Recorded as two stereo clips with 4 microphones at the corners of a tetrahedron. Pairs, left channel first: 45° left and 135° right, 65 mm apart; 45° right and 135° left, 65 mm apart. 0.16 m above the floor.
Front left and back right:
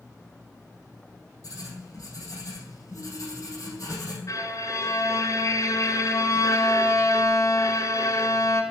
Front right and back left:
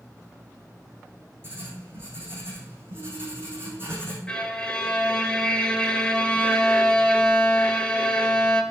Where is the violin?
35° left, 1.2 m.